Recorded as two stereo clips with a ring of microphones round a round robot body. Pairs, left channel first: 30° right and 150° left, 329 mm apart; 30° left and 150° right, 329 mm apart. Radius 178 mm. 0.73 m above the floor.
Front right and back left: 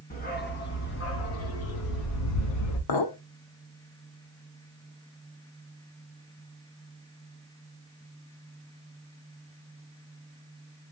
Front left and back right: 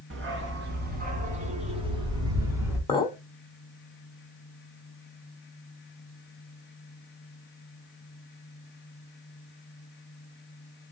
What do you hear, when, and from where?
0.1 s a dog barking: 95° right, 2.5 m; by 2.8 s 65° right, 3 m
2.9 s a clink: 45° right, 1.5 m